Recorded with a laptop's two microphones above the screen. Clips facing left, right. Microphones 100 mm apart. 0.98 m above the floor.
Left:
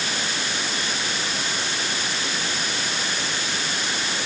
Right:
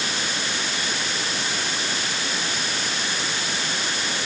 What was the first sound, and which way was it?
Only background noise.